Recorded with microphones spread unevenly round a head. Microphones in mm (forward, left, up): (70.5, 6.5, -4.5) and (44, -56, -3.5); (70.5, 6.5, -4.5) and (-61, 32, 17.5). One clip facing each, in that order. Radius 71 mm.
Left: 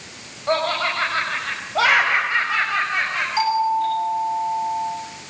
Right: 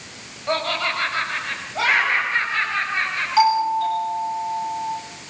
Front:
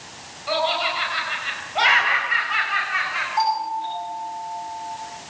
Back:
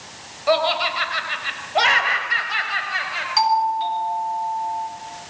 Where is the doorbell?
175° left, 10 m.